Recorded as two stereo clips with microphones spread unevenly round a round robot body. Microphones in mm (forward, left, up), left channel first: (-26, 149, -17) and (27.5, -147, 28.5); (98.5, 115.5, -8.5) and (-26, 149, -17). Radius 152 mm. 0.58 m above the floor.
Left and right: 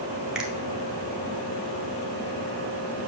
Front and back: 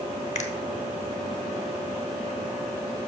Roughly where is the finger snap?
Ahead.